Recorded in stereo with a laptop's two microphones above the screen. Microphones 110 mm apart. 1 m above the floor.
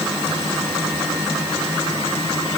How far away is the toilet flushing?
No toilet flushing in this recording.